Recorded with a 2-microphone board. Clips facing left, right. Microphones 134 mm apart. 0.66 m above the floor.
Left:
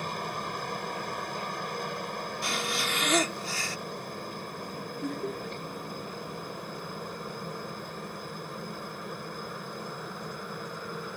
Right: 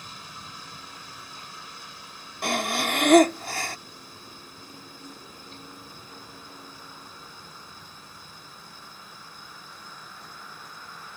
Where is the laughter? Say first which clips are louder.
Left 12 dB; 70° left (ahead or behind).